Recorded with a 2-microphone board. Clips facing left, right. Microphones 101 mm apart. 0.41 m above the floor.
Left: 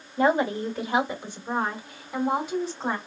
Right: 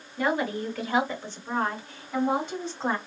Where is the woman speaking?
30° left (ahead or behind), 1.3 m; by 3.0 s centre (ahead or behind), 2 m.